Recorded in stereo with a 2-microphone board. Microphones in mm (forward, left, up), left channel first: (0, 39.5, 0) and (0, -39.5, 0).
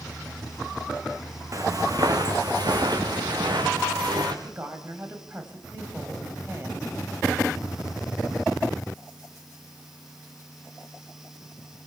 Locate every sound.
1.5 s footsteps: 50° right (ahead or behind), 3 m; by 4.3 s 85° right, 4 m
4.4 s a woman speaking: 30° right (ahead or behind), 3.5 m